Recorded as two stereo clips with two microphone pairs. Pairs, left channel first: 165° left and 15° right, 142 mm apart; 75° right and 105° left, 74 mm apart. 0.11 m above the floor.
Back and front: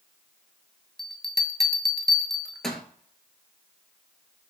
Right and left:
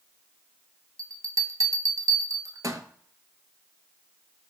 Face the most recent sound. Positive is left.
turn(degrees=85)